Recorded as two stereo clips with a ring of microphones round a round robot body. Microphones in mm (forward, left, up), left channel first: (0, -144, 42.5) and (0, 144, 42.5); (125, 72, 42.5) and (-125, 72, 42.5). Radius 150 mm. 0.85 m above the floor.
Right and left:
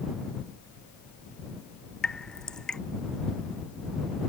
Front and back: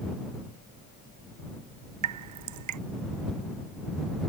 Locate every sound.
2.0 s dripping: straight behind